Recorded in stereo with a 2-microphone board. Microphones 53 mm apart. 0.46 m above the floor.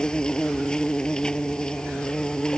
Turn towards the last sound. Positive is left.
turn(degrees=15)  # may be behind; listen again after turning